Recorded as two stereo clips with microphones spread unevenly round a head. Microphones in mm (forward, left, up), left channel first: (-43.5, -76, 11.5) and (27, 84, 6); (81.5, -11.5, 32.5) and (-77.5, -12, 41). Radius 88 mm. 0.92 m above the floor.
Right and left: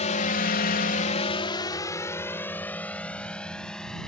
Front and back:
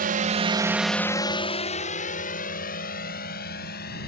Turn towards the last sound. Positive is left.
turn(degrees=-25)